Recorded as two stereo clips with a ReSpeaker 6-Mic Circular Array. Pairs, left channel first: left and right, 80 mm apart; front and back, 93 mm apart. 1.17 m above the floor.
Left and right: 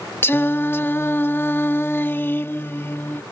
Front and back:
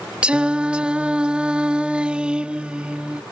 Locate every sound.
0.2 s singing: 115° left